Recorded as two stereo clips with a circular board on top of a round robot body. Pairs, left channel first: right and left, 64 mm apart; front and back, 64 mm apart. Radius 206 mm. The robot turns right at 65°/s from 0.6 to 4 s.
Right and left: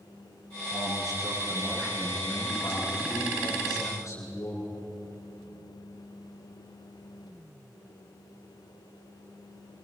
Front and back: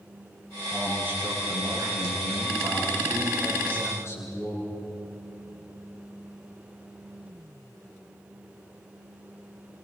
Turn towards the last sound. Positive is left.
turn(degrees=-50)